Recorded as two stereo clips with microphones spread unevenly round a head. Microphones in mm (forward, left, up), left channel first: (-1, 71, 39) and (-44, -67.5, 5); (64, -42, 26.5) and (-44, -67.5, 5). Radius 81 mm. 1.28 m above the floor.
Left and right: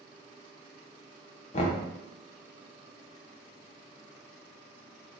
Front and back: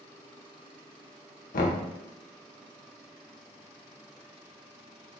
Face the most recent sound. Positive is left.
turn(degrees=20)